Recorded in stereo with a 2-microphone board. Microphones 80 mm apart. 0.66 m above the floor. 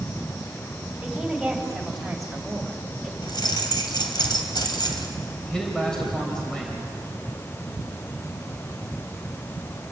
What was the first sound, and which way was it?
A woman speaking, centre (ahead or behind).